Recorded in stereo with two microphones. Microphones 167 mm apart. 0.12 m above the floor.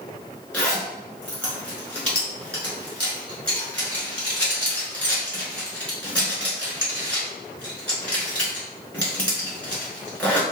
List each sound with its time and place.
0.5 s a zipper: 10° left (ahead or behind), 1.7 m